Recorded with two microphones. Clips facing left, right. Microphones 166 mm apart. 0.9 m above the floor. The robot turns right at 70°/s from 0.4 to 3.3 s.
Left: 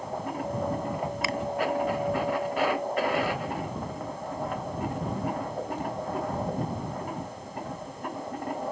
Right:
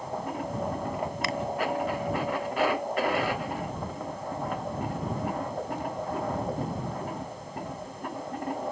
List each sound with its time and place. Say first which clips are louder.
1.2 s a finger snap: left 1 dB; centre (ahead or behind); by 1.4 s 10° right (ahead or behind)